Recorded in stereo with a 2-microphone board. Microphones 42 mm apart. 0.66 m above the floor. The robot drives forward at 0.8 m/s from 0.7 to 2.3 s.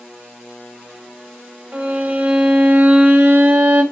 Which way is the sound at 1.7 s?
35° right (ahead or behind).